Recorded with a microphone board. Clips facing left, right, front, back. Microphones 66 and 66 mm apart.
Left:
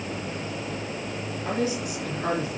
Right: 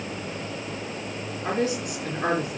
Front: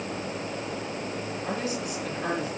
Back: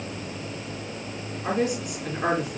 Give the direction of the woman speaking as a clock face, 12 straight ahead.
5 o'clock.